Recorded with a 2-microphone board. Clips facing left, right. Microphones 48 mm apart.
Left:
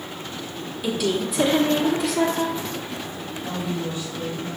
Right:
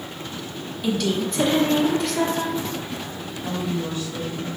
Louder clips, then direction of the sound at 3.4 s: Right 2 dB; 60° right (ahead or behind).